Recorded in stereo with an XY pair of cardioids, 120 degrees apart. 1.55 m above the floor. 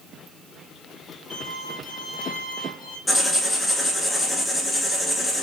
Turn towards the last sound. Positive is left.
turn(degrees=20)